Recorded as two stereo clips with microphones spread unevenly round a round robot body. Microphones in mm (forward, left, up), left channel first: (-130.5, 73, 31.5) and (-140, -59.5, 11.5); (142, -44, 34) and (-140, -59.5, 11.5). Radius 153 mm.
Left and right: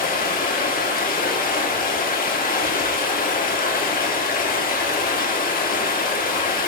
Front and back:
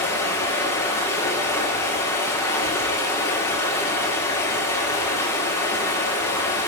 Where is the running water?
85° left, 1.7 m.